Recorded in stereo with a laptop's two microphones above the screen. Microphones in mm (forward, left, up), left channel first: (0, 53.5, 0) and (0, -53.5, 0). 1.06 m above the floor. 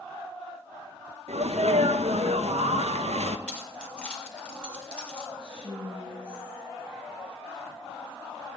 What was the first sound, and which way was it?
A sneeze, 75° right (ahead or behind).